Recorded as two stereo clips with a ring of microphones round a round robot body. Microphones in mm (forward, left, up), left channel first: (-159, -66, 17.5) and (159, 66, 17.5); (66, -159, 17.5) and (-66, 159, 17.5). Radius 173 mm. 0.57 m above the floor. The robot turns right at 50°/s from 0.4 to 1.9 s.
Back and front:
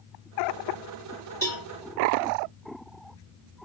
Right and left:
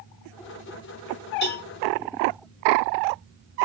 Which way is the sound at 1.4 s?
80° right.